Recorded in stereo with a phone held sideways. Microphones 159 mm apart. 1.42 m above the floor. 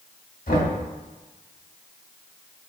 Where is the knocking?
60° left (ahead or behind), 2.5 m.